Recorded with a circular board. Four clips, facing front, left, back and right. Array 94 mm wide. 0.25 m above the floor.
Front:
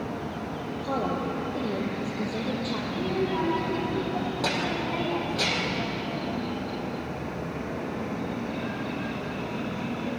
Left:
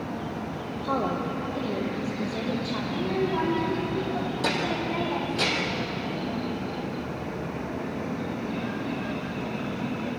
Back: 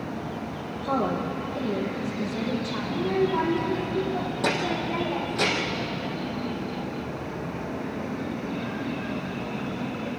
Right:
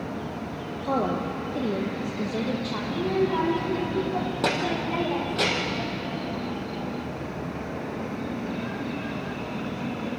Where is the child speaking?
80° right, 7.5 m.